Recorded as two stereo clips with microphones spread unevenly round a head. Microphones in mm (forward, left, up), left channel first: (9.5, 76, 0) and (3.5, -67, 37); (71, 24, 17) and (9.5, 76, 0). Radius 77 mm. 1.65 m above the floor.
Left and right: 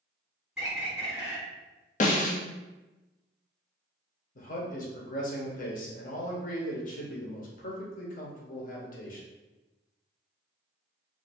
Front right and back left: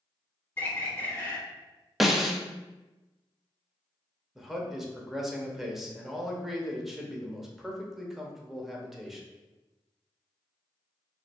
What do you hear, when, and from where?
0.6 s a bird: 35° right, 1.2 m
2.0 s a snare drum: 55° left, 0.6 m
4.3 s a man speaking: 50° left, 1.0 m